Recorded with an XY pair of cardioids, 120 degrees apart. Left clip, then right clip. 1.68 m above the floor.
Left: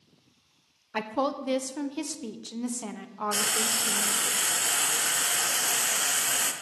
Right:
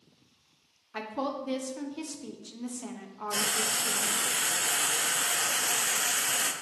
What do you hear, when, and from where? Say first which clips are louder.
0.9 s a woman speaking: left 5 dB; 35° left, 0.8 m
3.3 s frying: left 1 dB; 20° left, 0.9 m